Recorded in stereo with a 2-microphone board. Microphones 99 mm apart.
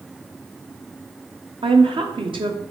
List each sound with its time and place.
1.6 s a woman speaking: 60° right (ahead or behind), 0.8 m